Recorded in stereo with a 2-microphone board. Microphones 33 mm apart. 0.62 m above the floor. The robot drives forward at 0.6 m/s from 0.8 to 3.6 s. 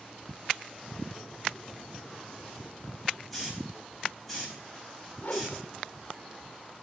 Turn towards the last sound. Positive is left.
turn(degrees=50)  # may be behind; listen again after turning